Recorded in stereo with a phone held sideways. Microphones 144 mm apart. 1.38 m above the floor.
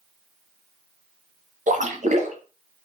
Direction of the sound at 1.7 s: 55° right (ahead or behind).